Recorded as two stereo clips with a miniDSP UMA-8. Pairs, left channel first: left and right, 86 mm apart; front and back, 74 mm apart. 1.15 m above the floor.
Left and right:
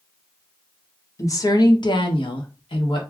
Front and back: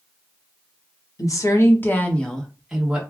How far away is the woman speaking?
About 0.9 m.